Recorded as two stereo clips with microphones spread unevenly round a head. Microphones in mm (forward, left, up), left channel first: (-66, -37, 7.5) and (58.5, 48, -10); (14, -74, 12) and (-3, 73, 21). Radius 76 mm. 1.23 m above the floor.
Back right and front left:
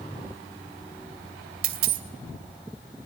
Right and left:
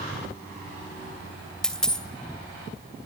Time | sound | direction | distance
1.6 | a dropped coin | 5° left | 2.5 m